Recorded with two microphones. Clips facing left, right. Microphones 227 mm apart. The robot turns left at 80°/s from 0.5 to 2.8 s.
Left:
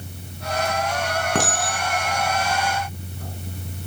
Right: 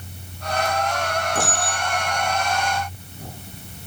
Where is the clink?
70° left (ahead or behind), 5.5 m; by 3.3 s 10° right (ahead or behind), 5.5 m.